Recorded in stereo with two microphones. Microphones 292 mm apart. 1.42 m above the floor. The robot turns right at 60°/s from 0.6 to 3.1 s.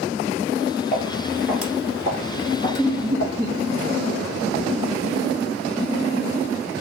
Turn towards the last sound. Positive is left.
turn(degrees=-15)  # may be behind; listen again after turning